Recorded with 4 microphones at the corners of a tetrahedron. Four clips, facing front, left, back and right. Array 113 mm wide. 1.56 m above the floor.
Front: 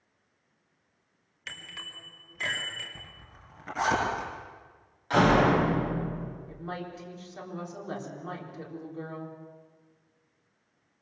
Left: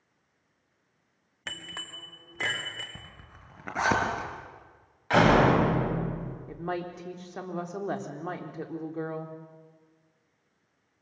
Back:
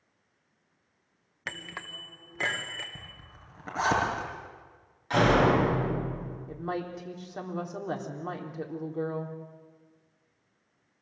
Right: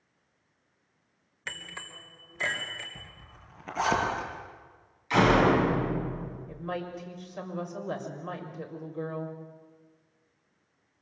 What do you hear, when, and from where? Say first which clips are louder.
1.5 s a bicycle bell: even, back 5 dB; 150° left, 2 m; by 2.9 s 140° left, 4 m
3.0 s a zipper: left 1 dB, back 1 dB; 115° left, 6.5 m
5.1 s a door slam: left 1 dB, front 1 dB; 90° left, 7 m
6.5 s a woman speaking: left 2 dB, back 8 dB; 125° left, 3.5 m